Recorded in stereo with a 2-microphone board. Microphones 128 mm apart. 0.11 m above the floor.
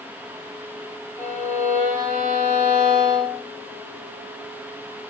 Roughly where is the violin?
Right.